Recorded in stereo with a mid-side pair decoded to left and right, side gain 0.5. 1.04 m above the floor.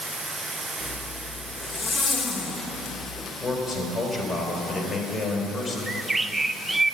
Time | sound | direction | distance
0.8 | a zipper | 40° left | 1.8 m
3.4 | a man speaking | 35° left | 4 m
5.9 | a bird | 15° right | 0.6 m